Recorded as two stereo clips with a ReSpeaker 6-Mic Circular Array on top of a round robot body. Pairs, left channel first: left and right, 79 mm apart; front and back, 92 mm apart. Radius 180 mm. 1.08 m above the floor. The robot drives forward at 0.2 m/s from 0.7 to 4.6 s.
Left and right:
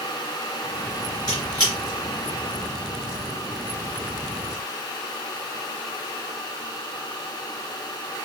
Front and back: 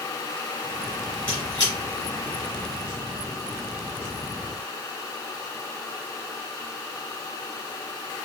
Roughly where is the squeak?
Ahead left.